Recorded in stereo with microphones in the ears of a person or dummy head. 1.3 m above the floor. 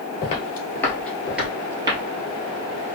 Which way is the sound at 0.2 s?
30° left (ahead or behind).